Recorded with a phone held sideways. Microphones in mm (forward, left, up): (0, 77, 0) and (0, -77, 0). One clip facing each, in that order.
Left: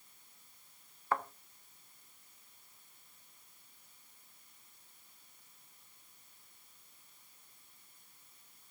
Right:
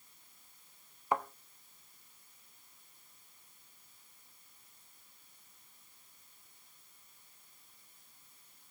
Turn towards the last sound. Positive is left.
turn(degrees=-15)  # may be behind; listen again after turning